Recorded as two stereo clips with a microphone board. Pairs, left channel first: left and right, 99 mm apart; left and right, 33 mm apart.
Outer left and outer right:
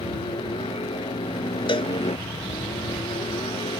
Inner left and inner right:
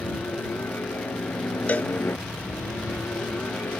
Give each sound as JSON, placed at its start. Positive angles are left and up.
{"t": 0.0, "sound": "a helicopter", "side_deg": 70}
{"t": 1.7, "sound": "a cowbell", "side_deg": 55}